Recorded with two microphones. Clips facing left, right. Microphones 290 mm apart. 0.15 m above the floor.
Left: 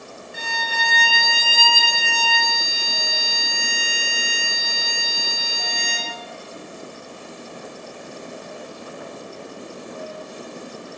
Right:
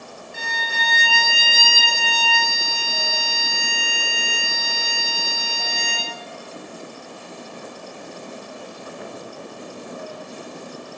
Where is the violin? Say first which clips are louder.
Left 2 dB; 55° right (ahead or behind), 0.8 m.